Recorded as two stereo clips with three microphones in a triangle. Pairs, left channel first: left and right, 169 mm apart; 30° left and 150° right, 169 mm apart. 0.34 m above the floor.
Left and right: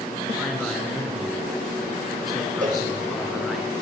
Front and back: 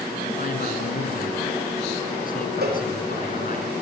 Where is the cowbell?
130° right, 8 m.